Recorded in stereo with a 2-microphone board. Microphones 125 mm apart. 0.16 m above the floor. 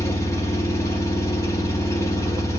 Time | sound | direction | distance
0.0 | an engine running | 25° left (ahead or behind) | 1.0 m